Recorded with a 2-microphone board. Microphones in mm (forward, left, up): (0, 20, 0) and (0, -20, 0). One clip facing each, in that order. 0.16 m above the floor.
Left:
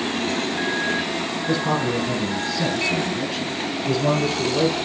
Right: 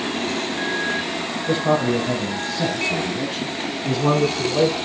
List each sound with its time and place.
1.5 s a man speaking: 50° right (ahead or behind), 4.5 m; by 4.8 s 55° right (ahead or behind), 7 m